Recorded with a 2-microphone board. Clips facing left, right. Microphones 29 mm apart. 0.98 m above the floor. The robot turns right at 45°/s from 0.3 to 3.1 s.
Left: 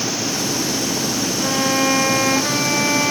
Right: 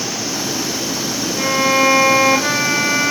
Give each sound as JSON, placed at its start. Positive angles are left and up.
{"t": 1.4, "sound": "a violin", "azimuth_deg": -115, "distance_m": 1.6}